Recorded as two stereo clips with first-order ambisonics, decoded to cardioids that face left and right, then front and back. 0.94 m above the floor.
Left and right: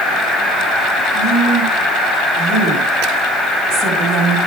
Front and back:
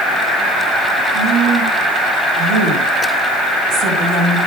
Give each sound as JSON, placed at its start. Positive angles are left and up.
{"t": 1.1, "sound": "a woman speaking", "azimuth_deg": -135, "distance_m": 6.5}